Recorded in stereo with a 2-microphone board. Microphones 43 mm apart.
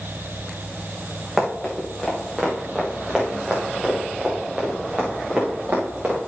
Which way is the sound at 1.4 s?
5° right (ahead or behind).